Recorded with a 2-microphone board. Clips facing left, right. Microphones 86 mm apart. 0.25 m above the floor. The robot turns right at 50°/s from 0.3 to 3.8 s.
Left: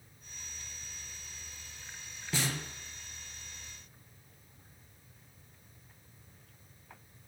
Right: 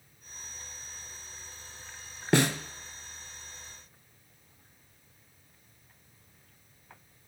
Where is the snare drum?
85° right, 0.8 m; by 2.6 s 75° right (ahead or behind), 0.8 m.